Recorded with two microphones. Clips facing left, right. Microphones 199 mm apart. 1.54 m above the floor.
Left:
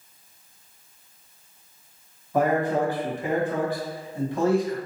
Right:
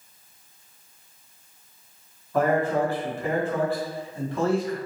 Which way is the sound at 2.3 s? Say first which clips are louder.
Even; 15° left (ahead or behind).